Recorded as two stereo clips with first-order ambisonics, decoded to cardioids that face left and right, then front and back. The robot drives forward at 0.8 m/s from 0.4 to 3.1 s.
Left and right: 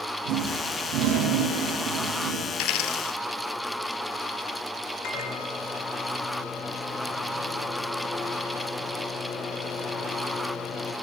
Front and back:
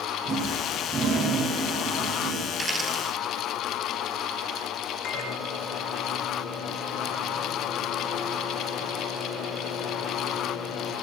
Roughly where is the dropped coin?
Left.